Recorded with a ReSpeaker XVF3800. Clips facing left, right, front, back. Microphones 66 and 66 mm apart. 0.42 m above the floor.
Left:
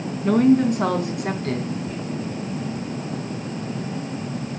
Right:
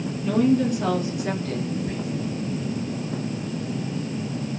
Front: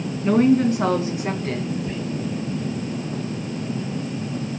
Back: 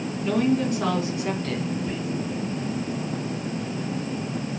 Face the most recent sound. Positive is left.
turn(degrees=-90)